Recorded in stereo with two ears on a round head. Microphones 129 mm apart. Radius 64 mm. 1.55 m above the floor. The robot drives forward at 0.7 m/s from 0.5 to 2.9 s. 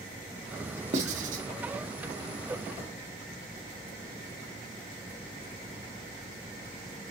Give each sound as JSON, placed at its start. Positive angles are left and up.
{"t": 0.9, "sound": "writing", "side_deg": -50, "distance_m": 1.6}